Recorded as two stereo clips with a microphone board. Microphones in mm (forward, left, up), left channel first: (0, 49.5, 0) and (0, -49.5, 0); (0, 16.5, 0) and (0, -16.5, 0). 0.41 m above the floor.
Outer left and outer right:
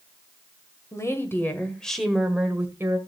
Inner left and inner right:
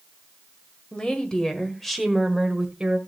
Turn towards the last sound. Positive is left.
turn(degrees=-30)  # may be behind; listen again after turning